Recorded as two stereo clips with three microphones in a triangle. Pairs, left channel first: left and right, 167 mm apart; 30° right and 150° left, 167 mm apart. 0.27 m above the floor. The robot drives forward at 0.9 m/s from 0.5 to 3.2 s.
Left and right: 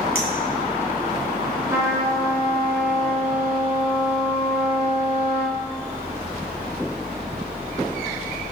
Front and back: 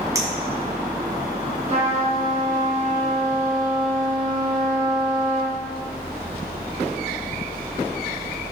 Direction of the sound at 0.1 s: 85° left.